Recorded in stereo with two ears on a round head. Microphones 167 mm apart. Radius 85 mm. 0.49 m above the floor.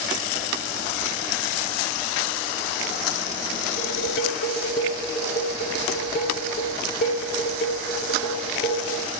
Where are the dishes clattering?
50° left (ahead or behind), 6 m.